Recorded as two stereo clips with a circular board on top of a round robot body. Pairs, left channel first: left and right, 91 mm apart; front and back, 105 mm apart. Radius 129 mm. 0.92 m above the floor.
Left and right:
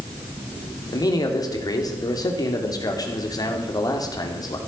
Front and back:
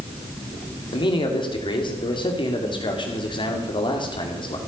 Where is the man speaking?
40° left, 2.5 m.